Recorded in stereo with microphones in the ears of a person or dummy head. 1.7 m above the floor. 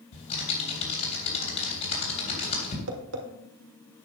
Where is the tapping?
80° right, 1.7 m.